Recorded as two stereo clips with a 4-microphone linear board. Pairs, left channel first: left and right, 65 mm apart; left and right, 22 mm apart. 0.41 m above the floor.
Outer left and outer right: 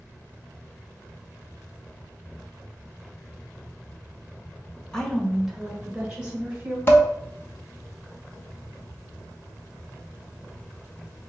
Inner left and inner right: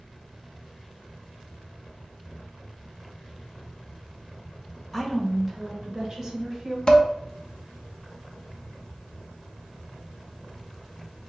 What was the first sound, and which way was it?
A woman speaking, 10° left (ahead or behind).